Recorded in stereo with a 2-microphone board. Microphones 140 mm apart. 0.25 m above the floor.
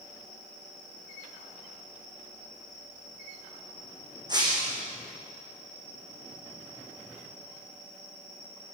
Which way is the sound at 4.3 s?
30° right (ahead or behind).